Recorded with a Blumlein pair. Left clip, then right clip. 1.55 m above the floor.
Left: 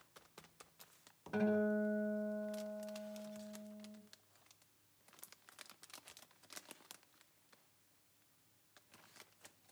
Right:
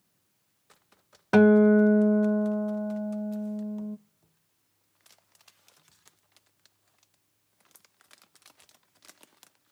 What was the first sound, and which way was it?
A guitar, 50° right.